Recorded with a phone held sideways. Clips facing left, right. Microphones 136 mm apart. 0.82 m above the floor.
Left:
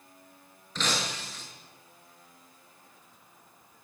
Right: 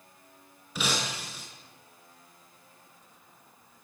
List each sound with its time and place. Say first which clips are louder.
0.8 s breaking glass: even; 10° right (ahead or behind), 9 m